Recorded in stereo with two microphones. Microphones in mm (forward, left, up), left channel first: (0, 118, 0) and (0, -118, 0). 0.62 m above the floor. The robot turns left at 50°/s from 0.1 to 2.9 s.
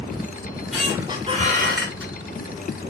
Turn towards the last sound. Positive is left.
turn(degrees=-110)